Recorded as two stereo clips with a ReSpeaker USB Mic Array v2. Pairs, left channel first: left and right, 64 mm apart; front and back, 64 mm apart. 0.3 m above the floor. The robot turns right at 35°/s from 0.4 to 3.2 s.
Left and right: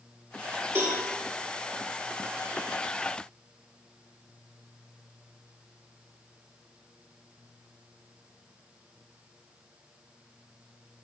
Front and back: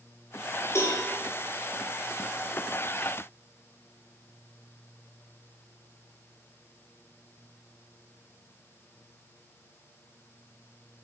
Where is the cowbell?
45° right, 6 m; by 1.0 s 35° right, 6 m.